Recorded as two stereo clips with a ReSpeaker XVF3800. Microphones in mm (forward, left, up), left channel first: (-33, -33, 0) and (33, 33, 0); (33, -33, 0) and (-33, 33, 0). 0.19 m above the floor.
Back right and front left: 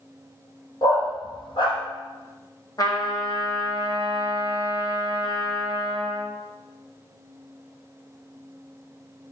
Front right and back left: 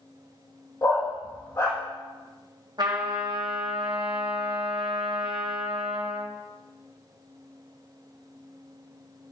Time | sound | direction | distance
0.8 | a dog barking | 100° right | 3 m
2.8 | a trumpet | 175° left | 2.5 m